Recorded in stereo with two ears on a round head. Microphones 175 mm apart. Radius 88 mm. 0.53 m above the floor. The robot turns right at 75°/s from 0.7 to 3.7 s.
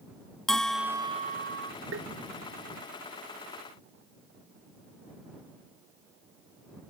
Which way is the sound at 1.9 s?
70° right (ahead or behind).